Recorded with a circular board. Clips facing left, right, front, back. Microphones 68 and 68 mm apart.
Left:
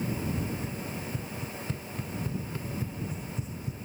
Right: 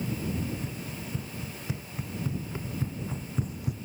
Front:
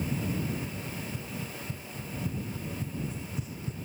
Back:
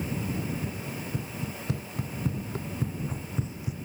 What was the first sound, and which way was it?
Running footsteps, straight behind.